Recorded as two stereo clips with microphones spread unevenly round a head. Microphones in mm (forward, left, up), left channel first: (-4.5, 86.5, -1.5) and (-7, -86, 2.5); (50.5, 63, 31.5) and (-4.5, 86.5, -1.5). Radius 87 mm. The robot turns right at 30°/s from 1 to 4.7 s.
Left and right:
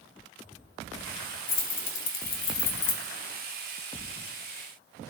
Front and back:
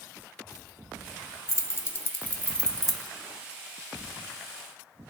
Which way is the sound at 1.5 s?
20° left.